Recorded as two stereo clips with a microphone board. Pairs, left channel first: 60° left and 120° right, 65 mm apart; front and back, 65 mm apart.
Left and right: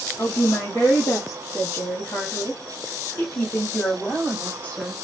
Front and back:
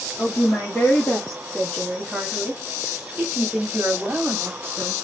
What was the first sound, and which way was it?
A woman speaking, 40° left.